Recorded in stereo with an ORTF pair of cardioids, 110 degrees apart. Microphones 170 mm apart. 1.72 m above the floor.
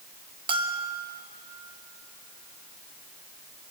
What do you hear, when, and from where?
0.5 s a bell: 30° right, 2 m